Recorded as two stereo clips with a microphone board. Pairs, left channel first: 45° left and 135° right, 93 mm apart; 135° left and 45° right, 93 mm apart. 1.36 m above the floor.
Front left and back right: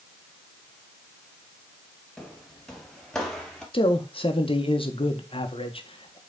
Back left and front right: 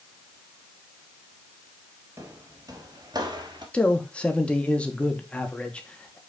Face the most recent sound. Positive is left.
turn(degrees=55)